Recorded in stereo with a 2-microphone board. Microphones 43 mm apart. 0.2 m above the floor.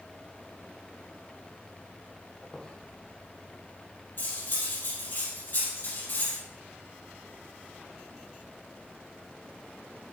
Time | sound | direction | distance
2.4 | a squeak | 10° left (ahead or behind) | 2.5 m
4.2 | cutlery clinking | 45° left (ahead or behind) | 3.5 m